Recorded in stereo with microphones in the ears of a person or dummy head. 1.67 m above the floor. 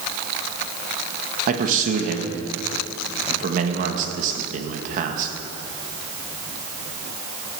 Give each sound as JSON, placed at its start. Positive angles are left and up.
{"t": 1.5, "sound": "a man speaking", "side_deg": -45, "distance_m": 1.8}